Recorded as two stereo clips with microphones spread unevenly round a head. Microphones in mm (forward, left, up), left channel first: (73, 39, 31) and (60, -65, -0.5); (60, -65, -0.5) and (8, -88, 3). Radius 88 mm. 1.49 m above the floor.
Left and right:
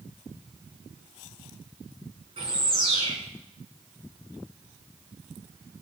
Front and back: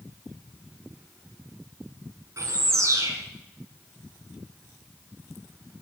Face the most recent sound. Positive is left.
turn(degrees=-160)